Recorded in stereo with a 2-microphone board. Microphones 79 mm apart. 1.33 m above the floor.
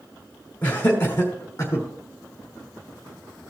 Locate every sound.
0.6 s laughter: 20° left (ahead or behind), 3.5 m; by 1.9 s 35° left (ahead or behind), 3.5 m